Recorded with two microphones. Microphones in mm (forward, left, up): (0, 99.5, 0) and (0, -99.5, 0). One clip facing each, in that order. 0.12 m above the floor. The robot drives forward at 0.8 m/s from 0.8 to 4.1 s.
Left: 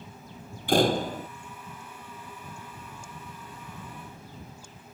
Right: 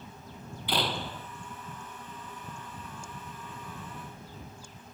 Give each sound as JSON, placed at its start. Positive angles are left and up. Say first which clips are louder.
{"t": 0.7, "sound": "a door slam", "louder": "left 10 dB", "side_deg": 50}